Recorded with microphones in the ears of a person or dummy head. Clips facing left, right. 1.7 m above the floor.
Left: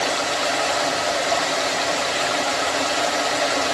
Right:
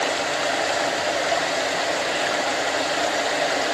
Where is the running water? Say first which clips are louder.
Left 1 dB; centre (ahead or behind), 0.9 m.